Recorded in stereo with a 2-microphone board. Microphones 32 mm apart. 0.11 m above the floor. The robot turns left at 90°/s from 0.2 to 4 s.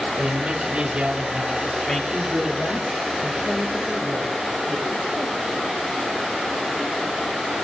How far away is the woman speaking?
About 2.5 m.